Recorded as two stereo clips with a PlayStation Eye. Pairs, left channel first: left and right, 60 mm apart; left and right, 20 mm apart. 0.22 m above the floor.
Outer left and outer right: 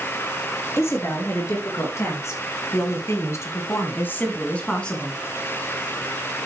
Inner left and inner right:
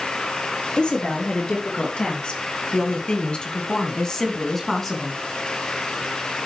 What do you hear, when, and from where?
0.8 s a woman speaking: 45° left (ahead or behind), 4.5 m; by 5.2 s 10° left (ahead or behind), 2.5 m